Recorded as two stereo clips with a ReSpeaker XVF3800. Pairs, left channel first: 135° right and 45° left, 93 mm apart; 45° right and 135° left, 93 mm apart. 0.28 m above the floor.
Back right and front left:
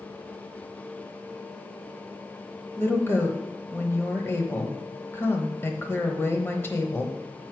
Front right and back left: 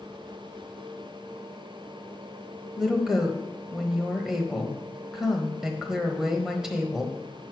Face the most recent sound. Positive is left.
turn(degrees=-150)